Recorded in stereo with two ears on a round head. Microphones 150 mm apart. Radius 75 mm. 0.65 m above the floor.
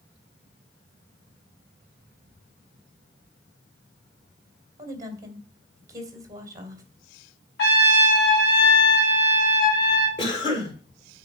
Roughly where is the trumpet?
Left.